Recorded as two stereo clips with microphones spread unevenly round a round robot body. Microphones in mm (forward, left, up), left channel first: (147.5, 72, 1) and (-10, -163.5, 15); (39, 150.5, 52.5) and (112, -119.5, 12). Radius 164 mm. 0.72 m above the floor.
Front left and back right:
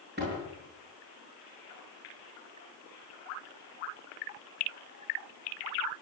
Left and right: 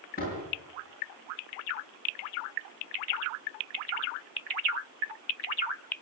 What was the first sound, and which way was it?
A door slam, 170° left.